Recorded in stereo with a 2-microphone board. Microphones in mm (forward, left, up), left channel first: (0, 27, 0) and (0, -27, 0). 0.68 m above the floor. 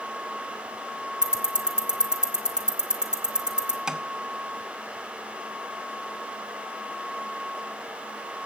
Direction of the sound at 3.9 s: 15° right (ahead or behind).